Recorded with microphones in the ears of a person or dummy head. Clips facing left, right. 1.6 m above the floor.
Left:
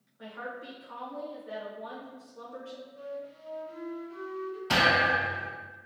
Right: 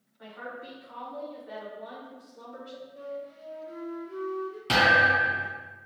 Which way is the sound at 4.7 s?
30° right (ahead or behind).